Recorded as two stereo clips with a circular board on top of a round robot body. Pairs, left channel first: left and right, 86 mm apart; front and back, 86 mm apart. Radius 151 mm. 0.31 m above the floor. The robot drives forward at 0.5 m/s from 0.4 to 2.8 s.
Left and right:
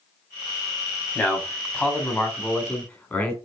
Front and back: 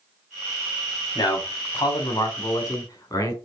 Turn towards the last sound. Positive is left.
turn(degrees=40)